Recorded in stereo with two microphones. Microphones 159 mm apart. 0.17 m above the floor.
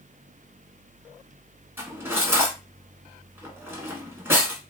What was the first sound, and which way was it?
Cutlery clinking, 15° right (ahead or behind).